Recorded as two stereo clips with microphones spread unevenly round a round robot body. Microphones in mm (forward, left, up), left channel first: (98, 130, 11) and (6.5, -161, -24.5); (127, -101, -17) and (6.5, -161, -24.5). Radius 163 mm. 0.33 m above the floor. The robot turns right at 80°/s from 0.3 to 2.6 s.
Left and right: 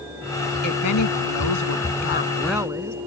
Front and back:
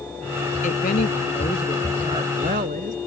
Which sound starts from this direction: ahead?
A woman speaking, at 0.6 s.